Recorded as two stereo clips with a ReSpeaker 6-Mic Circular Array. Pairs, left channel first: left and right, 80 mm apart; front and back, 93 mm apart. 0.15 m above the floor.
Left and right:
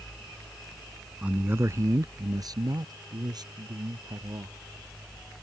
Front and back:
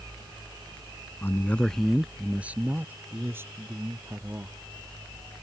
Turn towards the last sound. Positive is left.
turn(degrees=-120)